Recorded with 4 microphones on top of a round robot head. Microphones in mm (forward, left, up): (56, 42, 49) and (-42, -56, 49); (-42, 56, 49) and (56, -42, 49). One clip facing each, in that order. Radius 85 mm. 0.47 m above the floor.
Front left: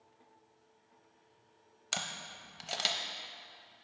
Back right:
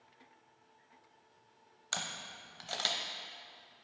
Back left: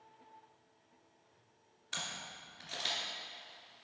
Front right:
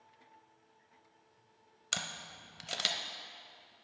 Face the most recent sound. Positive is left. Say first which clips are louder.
# front left 1 dB, front right 2 dB
turn(degrees=-35)